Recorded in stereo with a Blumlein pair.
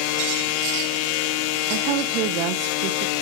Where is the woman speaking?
40° right, 0.7 m.